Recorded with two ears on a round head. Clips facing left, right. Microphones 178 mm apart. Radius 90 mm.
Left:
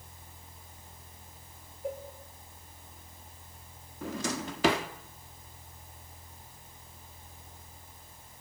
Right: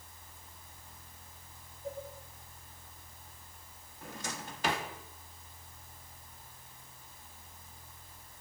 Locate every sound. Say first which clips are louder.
1.8 s a cowbell: left 4 dB; 55° left (ahead or behind), 5 m
4.0 s a drawer: left 9 dB; 65° left (ahead or behind), 1.6 m